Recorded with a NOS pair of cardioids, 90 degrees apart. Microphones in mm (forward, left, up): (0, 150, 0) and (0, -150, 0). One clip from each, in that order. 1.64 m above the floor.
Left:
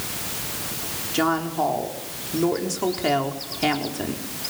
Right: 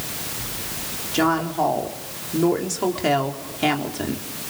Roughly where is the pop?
I don't hear a pop.